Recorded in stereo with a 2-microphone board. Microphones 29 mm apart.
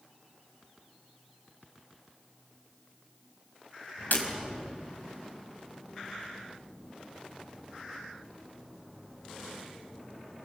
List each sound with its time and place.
4.1 s breaking glass: 80° left, 3.5 m